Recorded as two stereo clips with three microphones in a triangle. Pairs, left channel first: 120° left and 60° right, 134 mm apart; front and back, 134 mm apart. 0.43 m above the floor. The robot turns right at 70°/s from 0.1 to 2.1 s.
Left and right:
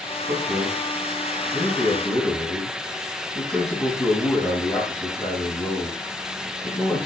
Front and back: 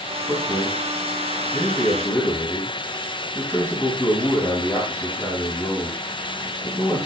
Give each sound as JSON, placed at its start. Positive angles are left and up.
{"t": 0.3, "sound": "a man speaking", "azimuth_deg": -60, "distance_m": 3.5}